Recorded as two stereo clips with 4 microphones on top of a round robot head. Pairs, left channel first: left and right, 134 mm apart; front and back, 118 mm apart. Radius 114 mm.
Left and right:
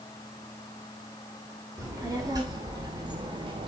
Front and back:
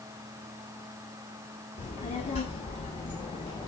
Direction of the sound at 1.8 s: 25° right.